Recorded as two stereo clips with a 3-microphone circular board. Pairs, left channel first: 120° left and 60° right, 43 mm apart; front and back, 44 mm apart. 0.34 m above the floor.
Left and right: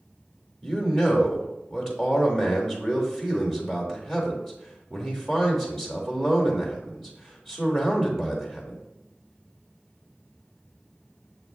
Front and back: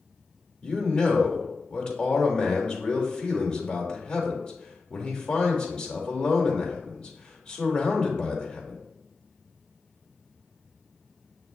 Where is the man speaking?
20° left, 0.9 m.